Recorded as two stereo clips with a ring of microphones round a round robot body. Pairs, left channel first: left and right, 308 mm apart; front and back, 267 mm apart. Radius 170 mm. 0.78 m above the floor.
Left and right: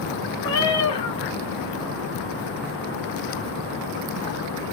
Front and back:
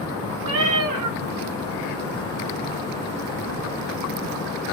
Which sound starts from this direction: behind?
A cat meowing, at 0.4 s.